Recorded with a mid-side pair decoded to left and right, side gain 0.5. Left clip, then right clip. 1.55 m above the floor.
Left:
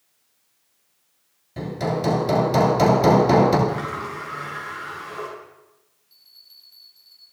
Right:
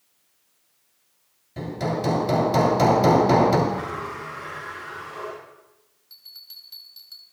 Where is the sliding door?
45° left, 10 m.